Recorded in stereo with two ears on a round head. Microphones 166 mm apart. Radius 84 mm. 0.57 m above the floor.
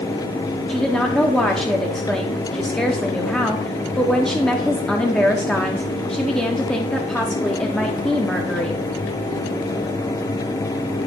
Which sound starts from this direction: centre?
A woman speaking, at 0.7 s.